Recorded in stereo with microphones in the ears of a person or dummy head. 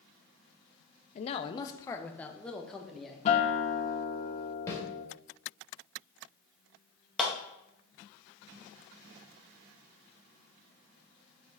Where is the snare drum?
15° left (ahead or behind), 2.5 m.